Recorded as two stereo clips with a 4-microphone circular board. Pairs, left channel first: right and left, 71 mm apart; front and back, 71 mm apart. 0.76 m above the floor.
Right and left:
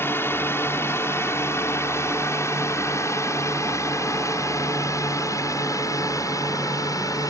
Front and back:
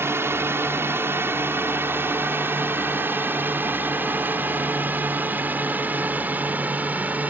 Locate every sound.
0.0 s a drone: 135° right; by 7.3 s 115° right